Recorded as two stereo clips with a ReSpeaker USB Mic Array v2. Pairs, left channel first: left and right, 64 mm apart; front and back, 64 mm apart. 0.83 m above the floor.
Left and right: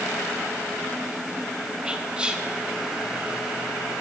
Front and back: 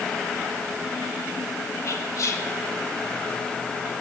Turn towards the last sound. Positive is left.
turn(degrees=-20)